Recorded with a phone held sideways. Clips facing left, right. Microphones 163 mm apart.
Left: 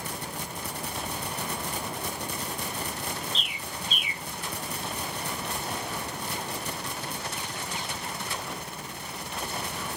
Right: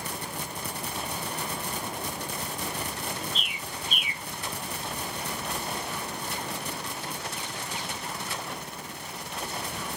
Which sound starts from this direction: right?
A bird, at 3.3 s.